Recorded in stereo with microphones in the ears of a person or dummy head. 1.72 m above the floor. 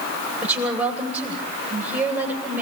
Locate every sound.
0.4 s a woman speaking: 10° right (ahead or behind), 9 m